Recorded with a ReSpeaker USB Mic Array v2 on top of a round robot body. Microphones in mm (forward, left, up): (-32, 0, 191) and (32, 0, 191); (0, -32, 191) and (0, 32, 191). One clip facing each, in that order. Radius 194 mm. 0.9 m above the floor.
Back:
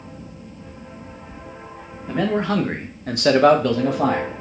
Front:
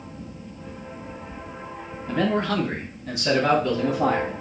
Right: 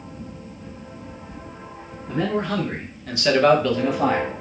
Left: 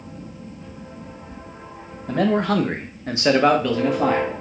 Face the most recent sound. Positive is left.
turn(degrees=-170)